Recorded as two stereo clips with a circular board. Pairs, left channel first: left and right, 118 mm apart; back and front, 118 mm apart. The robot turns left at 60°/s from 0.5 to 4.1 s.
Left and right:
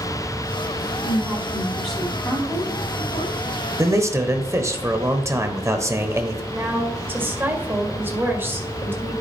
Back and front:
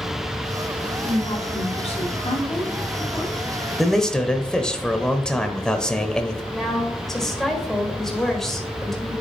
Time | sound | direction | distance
1.0 | a woman speaking | 130° right | 3 m
3.8 | a man speaking | 90° right | 0.9 m
6.5 | a woman speaking | 100° right | 1.5 m